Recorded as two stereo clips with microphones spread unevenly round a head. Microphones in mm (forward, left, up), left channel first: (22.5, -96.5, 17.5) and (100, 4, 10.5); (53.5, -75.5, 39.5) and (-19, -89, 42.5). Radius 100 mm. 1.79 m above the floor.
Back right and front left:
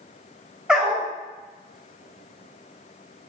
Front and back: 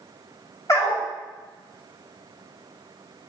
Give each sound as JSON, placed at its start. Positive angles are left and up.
{"t": 0.7, "sound": "a dog barking", "azimuth_deg": -30, "distance_m": 4.5}